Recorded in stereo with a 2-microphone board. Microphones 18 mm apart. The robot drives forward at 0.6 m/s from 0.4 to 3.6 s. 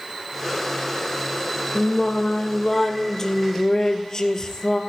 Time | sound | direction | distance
1.8 | singing | 20° left (ahead or behind) | 2.5 m